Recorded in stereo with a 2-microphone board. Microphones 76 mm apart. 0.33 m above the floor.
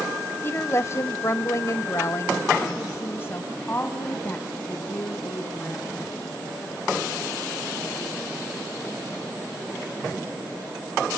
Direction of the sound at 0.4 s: 30° left (ahead or behind).